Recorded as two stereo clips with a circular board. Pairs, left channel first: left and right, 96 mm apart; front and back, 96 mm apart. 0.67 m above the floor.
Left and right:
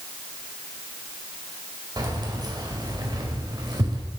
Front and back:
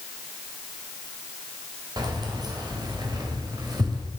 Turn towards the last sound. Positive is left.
turn(degrees=-135)